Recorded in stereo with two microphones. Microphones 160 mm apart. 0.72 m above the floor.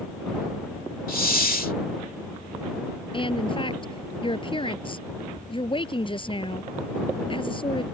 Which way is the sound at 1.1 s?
65° left (ahead or behind).